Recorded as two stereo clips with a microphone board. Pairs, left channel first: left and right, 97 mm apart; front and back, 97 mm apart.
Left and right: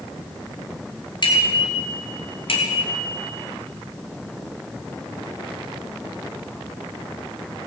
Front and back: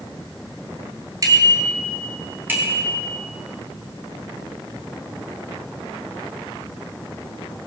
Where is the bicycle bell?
125° left, 4 m; by 3.1 s 100° left, 3.5 m.